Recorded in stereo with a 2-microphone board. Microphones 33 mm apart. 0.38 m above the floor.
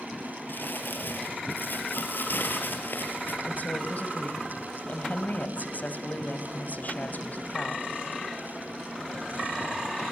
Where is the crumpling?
85° left, 4 m.